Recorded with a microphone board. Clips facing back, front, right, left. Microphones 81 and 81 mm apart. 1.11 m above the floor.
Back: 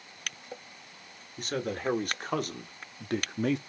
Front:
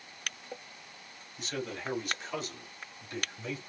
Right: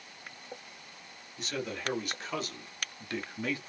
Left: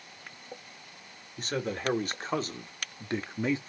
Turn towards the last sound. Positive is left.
turn(degrees=160)